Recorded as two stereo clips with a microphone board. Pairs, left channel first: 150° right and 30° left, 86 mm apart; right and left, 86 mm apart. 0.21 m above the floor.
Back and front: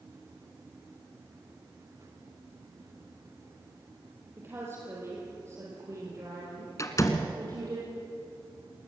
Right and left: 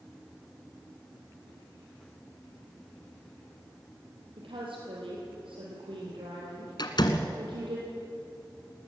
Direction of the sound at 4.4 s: 95° left.